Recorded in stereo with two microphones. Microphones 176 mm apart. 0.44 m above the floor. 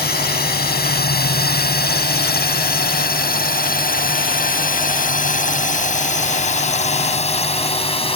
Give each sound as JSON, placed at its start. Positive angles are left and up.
{"t": 0.0, "sound": "a drone", "side_deg": 65}